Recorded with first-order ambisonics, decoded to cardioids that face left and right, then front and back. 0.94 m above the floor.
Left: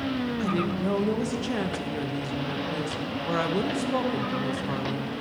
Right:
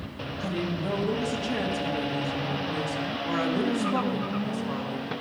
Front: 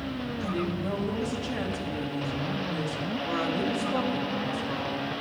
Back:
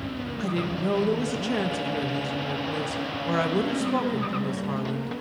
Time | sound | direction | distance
0.4 | a woman speaking | 155° left | 0.6 m